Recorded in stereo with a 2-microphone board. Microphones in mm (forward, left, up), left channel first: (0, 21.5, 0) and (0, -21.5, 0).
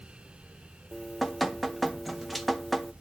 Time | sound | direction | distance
0.9 | dripping | centre (ahead or behind) | 0.6 m